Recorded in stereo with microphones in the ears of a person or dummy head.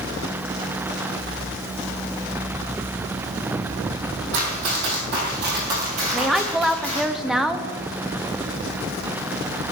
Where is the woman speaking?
5° right (ahead or behind), 0.6 m.